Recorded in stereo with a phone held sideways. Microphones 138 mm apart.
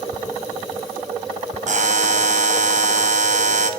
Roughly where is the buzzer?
Right.